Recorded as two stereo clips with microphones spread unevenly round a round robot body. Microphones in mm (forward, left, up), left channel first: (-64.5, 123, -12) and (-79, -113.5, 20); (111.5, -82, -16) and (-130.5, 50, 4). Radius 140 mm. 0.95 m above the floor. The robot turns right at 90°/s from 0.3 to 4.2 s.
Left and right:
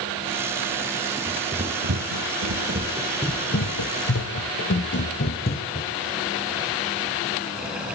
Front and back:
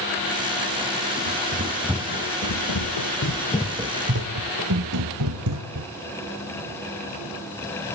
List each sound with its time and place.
1.3 s running footsteps: 170° left, 4 m; by 5.9 s 140° left, 3 m